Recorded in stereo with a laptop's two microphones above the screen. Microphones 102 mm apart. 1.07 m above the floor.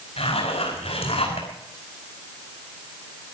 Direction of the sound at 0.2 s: 80° left.